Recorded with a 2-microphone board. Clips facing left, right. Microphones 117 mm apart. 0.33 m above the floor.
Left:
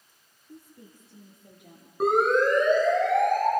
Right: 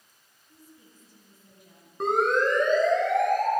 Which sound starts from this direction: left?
A woman speaking, at 0.5 s.